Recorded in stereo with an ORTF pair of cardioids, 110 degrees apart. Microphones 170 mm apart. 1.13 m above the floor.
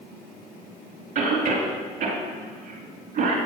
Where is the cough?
50° right, 2 m.